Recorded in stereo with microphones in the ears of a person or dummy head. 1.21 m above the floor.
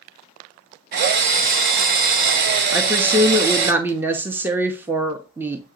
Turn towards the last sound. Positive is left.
turn(degrees=-15)  # may be behind; listen again after turning